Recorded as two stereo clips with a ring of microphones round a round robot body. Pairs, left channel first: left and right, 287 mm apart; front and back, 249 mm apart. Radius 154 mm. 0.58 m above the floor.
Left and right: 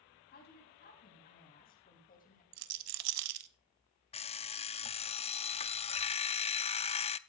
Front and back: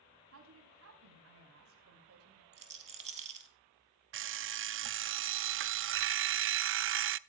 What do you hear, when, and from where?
0.3 s a woman speaking: 150° left, 5 m; by 2.4 s 155° left, 3.5 m
2.5 s a rattle: 115° right, 0.6 m
4.1 s an alarm clock: 155° left, 0.5 m